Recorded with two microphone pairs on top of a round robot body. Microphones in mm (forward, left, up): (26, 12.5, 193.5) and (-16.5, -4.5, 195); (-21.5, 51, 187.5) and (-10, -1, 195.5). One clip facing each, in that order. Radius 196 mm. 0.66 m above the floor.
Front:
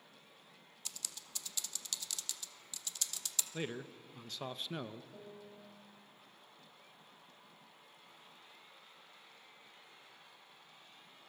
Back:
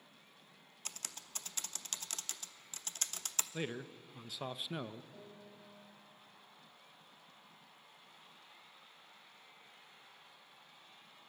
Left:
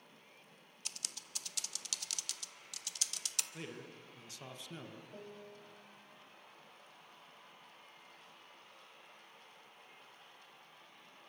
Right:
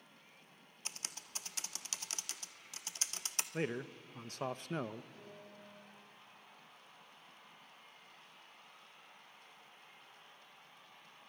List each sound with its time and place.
0.8 s typing on a keyboard: 130° right, 1.4 m
3.5 s a man speaking: 75° right, 1.1 m
5.1 s a piano: 100° left, 7 m